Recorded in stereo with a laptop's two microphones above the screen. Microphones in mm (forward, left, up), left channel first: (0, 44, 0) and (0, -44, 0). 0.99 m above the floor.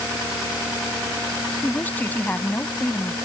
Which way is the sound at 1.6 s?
20° left (ahead or behind).